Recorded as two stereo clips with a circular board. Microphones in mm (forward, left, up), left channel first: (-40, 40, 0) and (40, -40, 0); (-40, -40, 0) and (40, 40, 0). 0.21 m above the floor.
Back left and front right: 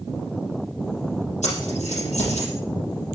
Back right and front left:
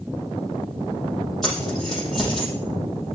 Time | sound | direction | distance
1.4 | keys jangling | 140° left | 5.5 m